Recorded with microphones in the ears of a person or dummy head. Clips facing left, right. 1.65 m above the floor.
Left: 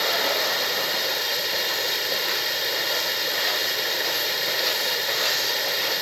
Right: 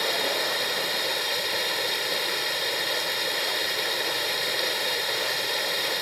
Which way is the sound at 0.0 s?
Centre (ahead or behind).